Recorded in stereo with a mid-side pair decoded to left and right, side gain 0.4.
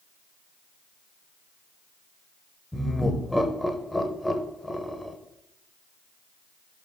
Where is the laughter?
10° left, 1.0 m.